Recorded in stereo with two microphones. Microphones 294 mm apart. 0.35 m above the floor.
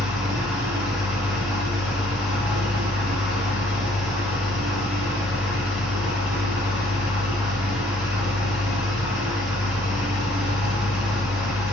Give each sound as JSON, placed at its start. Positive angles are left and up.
{"t": 0.0, "sound": "an engine running", "side_deg": 0, "distance_m": 0.8}